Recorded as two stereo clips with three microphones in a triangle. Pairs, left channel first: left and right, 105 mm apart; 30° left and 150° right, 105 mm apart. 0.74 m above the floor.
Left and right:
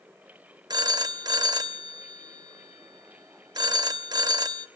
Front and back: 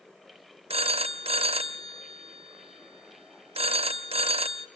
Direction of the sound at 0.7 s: 140° right.